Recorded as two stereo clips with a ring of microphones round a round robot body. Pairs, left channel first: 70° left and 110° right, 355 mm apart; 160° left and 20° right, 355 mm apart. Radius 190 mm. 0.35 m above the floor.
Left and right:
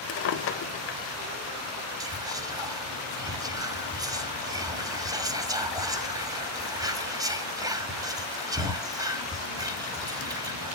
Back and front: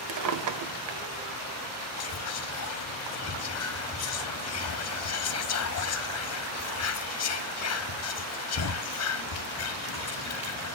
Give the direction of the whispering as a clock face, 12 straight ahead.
6 o'clock.